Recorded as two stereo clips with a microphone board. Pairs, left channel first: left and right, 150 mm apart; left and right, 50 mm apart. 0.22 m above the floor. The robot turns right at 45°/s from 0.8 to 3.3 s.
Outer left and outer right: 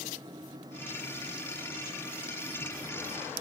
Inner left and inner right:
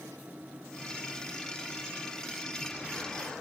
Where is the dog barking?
I don't hear a dog barking.